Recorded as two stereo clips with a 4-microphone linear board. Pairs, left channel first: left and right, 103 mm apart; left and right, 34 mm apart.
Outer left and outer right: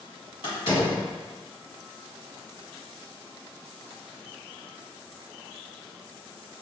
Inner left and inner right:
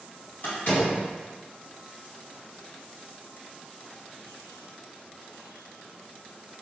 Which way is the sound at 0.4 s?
55° left (ahead or behind).